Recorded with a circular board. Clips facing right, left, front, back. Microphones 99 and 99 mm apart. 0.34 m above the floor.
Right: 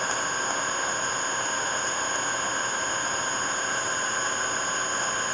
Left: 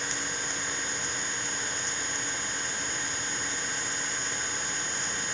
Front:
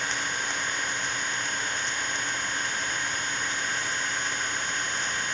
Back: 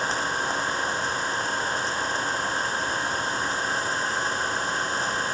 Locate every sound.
0.0 s an engine running: 125° right